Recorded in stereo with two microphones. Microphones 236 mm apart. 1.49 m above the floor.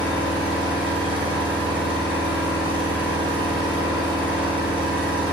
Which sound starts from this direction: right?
An engine running, at 0.0 s.